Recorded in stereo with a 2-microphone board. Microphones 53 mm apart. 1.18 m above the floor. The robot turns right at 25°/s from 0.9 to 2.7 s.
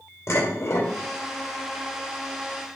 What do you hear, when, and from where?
0.3 s dishes clattering: 65° left (ahead or behind), 2.5 m